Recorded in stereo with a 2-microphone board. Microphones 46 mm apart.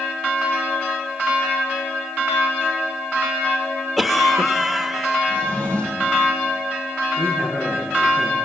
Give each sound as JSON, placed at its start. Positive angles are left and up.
{"t": 4.0, "sound": "a cough", "side_deg": 0, "distance_m": 1.2}
{"t": 5.3, "sound": "a drawer", "side_deg": 45, "distance_m": 6.5}
{"t": 7.2, "sound": "a man speaking", "side_deg": 60, "distance_m": 6.0}